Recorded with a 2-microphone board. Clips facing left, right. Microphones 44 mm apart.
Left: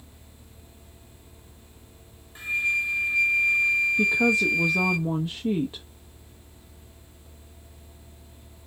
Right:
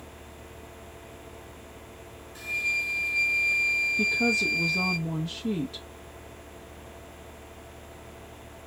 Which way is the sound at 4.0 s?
25° left (ahead or behind).